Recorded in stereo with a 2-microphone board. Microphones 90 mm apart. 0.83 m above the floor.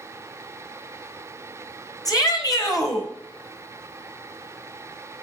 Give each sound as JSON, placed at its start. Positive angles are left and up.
{"t": 2.0, "sound": "a shout", "side_deg": 45, "distance_m": 4.0}